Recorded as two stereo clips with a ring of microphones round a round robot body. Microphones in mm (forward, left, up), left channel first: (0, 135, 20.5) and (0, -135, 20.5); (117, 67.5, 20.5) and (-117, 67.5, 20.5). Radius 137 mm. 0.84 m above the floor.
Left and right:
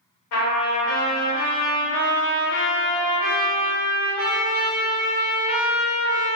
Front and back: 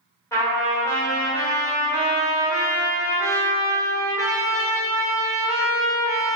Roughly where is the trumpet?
Left.